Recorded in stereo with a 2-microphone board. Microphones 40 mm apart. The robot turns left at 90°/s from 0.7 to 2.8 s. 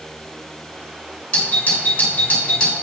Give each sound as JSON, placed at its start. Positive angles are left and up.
{"t": 1.3, "sound": "a doorbell", "azimuth_deg": 145, "distance_m": 3.0}